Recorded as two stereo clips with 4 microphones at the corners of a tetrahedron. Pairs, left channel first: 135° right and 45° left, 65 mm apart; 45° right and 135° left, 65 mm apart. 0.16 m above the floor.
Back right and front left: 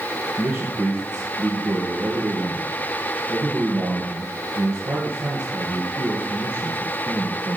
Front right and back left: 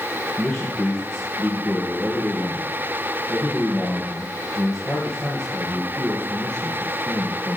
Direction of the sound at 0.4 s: 30° left.